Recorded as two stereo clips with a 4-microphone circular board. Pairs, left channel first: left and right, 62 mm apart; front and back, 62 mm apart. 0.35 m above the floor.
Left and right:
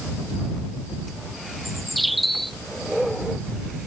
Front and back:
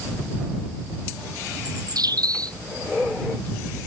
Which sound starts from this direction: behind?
A bird, at 1.6 s.